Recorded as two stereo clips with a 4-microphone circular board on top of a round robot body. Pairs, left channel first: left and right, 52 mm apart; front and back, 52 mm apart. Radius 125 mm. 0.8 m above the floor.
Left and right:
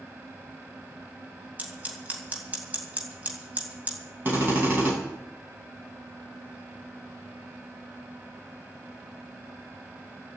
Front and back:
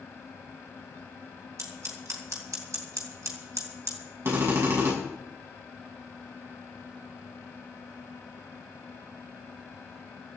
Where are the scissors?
155° right, 3 m.